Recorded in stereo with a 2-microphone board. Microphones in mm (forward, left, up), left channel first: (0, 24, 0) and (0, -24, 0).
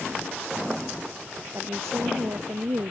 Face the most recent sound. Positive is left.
turn(degrees=-75)  # may be behind; listen again after turning